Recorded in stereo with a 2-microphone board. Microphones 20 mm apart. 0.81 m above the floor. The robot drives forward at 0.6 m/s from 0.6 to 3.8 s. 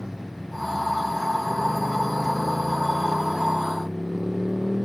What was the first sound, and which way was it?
A motorcycle, 25° right (ahead or behind).